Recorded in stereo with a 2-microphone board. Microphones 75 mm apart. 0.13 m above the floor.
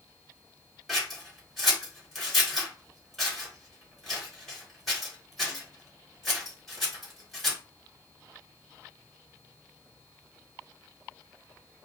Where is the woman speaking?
No woman speaking in this recording.